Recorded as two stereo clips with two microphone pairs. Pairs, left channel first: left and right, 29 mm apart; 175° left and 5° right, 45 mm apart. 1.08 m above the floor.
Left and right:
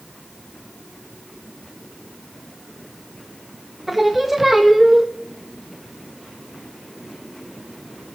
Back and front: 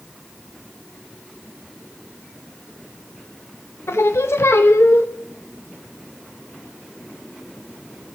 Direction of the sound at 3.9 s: 170° right.